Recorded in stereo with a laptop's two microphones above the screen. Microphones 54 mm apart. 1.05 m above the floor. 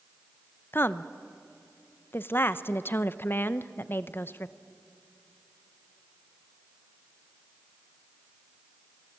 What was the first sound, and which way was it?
A woman speaking, 40° left (ahead or behind).